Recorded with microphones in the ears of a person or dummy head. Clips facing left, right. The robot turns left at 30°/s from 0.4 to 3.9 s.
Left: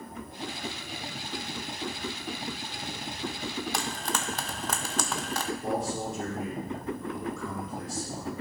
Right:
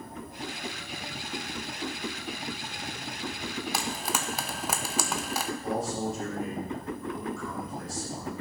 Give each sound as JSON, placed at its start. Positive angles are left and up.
{"t": 3.7, "sound": "frying", "side_deg": 0, "distance_m": 0.5}
{"t": 5.6, "sound": "a man speaking", "side_deg": 75, "distance_m": 3.0}